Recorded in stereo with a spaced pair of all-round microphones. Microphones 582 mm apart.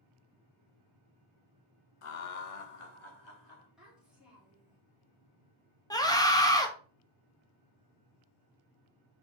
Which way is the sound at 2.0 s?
60° left (ahead or behind).